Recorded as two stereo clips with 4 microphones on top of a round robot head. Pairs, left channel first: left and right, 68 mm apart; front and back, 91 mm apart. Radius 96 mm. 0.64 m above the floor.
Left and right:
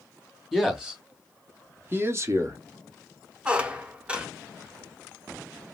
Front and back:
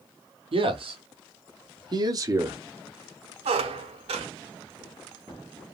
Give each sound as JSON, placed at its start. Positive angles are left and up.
{"t": 0.5, "sound": "a man speaking", "azimuth_deg": -175, "distance_m": 1.7}
{"t": 3.5, "sound": "a squeak", "azimuth_deg": -165, "distance_m": 0.8}